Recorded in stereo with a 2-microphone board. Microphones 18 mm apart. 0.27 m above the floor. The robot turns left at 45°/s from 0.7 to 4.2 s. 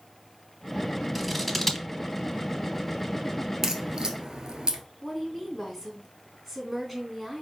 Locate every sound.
1.1 s scissors: 10° right (ahead or behind), 0.8 m; by 1.9 s 20° left (ahead or behind), 0.8 m
3.6 s a crack: 25° right (ahead or behind), 1.0 m; by 4.8 s 50° right (ahead or behind), 1.0 m
5.0 s a woman speaking: centre (ahead or behind), 2 m